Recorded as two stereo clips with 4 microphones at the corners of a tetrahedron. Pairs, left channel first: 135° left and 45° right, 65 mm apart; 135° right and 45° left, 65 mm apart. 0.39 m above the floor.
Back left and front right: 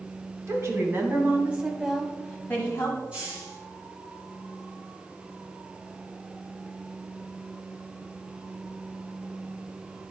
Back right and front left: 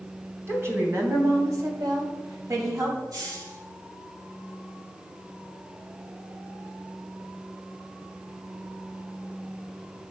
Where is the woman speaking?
5° right, 2.5 m; by 3.0 s 90° left, 2 m.